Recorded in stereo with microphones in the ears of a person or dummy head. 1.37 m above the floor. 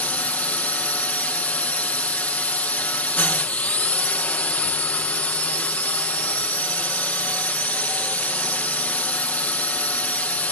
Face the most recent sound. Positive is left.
turn(degrees=10)  # may be behind; listen again after turning